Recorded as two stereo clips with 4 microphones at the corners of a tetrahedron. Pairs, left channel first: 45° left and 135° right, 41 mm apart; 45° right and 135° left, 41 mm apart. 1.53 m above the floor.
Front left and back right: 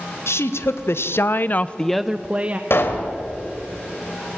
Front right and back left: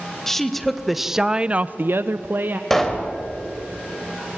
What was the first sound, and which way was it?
A woman speaking, 40° left.